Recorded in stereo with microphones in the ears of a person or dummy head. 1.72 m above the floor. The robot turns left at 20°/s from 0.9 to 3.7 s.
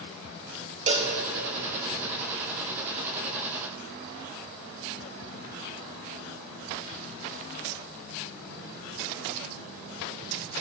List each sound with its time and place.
0.9 s a cowbell: 35° right (ahead or behind), 0.5 m; by 1.1 s 30° right (ahead or behind), 0.5 m